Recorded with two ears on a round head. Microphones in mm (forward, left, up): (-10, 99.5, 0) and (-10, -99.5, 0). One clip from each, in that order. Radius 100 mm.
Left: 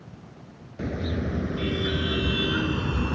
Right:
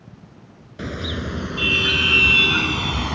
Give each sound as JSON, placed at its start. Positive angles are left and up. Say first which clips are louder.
{"t": 0.8, "sound": "a car horn", "louder": "right 3 dB", "side_deg": -85}